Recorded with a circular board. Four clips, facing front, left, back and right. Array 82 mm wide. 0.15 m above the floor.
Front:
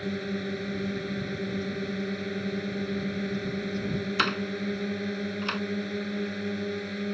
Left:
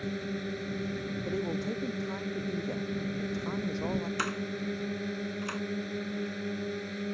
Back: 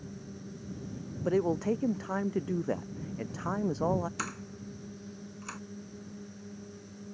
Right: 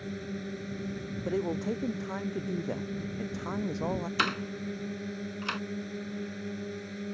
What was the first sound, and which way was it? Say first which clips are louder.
A drone: left 3 dB, front 13 dB; 20° left.